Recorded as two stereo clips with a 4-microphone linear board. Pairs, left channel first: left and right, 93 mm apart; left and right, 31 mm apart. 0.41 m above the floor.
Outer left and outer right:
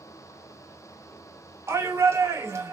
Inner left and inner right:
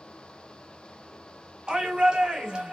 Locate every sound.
1.7 s a shout: 30° right (ahead or behind), 0.9 m